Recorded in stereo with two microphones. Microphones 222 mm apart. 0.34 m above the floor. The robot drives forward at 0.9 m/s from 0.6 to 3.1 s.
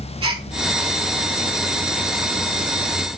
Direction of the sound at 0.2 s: 85° right.